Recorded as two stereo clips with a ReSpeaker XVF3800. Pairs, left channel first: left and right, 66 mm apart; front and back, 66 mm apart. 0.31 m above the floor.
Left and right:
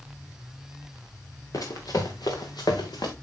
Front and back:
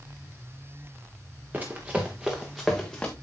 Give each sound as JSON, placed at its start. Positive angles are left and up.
{"t": 1.5, "sound": "running footsteps", "azimuth_deg": 120, "distance_m": 2.5}